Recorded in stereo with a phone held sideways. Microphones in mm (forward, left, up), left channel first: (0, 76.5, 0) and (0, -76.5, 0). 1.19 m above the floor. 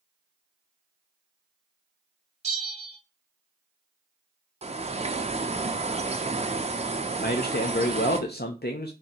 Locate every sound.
2.4 s a bell: 40° right (ahead or behind), 1.1 m
4.6 s a bird: 40° right (ahead or behind), 0.6 m
7.2 s a man speaking: 85° left, 0.5 m